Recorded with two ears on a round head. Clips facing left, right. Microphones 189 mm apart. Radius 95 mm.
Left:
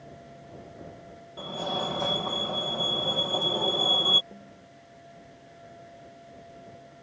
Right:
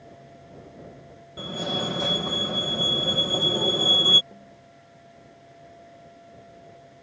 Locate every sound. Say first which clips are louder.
1.4 s a fire alarm: right 2 dB; 25° right (ahead or behind)
4.3 s a snare drum: even; 10° left (ahead or behind)